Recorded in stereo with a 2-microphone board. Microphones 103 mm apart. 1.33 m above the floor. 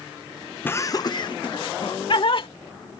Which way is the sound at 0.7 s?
20° left (ahead or behind).